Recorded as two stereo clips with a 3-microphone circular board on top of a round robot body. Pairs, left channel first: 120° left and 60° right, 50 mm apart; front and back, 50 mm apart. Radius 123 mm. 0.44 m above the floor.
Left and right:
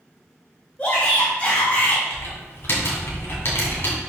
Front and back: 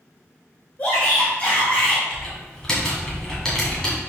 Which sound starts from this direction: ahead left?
A shout, at 0.8 s.